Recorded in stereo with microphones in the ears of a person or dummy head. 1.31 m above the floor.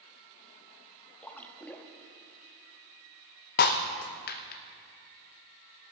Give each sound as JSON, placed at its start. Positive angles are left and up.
{"t": 1.2, "sound": "a splash", "side_deg": 10, "distance_m": 1.1}
{"t": 3.6, "sound": "breaking glass", "side_deg": 45, "distance_m": 0.5}